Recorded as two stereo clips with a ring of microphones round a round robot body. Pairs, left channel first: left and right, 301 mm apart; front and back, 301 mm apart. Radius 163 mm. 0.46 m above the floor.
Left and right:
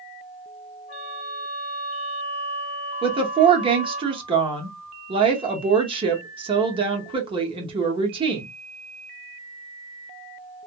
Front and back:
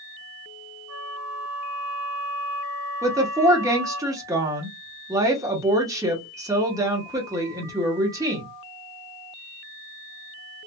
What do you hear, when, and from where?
0.9 s a flute: 150° left, 1.9 m
3.0 s a woman speaking: 125° right, 0.7 m